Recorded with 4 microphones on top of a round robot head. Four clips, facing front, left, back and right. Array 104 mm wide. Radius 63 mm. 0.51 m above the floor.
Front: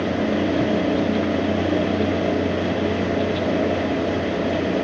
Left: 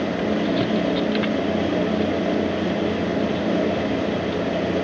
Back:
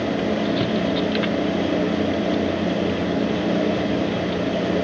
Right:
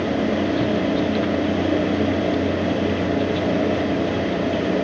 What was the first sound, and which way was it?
Only background noise.